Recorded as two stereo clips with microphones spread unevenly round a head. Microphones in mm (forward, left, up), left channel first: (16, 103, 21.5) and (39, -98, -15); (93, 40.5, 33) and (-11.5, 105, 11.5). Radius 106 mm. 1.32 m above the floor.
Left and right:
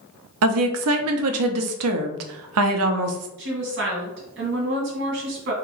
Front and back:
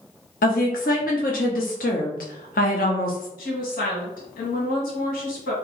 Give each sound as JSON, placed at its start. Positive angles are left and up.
{"t": 0.4, "sound": "a woman speaking", "azimuth_deg": -75, "distance_m": 0.6}
{"t": 3.4, "sound": "a woman speaking", "azimuth_deg": -55, "distance_m": 1.5}